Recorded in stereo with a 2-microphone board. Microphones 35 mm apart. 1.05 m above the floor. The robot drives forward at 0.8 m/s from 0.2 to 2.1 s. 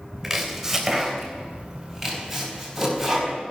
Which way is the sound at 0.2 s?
5° right (ahead or behind).